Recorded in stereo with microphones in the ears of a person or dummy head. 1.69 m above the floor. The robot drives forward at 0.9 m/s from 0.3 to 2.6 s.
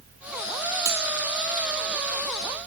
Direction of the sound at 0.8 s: 20° right (ahead or behind).